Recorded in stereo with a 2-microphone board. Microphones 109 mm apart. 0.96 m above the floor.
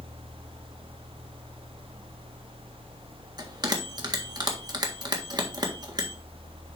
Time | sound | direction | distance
3.4 | a bell | 40° right (ahead or behind) | 1.6 m